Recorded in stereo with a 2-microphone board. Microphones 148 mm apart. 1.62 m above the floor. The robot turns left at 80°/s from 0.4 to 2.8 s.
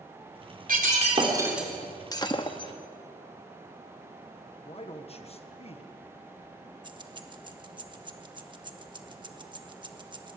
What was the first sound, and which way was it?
Breaking glass, 100° right.